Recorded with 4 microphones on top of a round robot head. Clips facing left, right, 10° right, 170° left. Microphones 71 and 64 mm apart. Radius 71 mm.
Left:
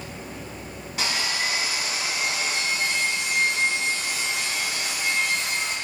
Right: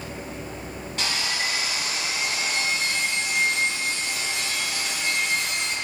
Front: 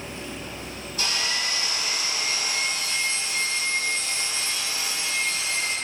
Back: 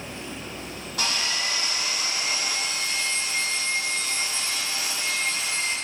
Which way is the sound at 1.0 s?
170° left.